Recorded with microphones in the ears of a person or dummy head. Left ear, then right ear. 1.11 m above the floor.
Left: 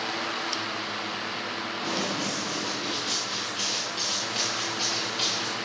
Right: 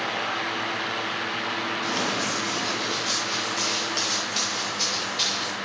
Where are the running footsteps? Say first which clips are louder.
Right 1 dB; 20° left (ahead or behind), 4.5 m; by 5.5 s 5° left (ahead or behind), 6 m.